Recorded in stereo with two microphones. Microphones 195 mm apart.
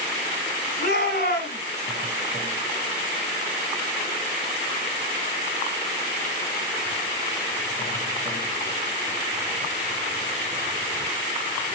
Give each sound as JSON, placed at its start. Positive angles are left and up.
{"t": 0.8, "sound": "a shout", "side_deg": 55, "distance_m": 4.0}